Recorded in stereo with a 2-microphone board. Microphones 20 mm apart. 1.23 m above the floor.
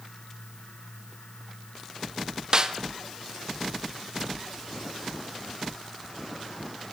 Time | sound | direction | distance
2.5 | a snare drum | 40° right (ahead or behind) | 0.7 m